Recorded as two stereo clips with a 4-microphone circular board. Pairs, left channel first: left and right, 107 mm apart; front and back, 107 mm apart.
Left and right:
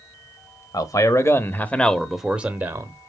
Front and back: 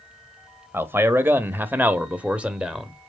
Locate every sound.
0.7 s a man speaking: 120° left, 1.2 m; by 2.9 s 105° right, 0.9 m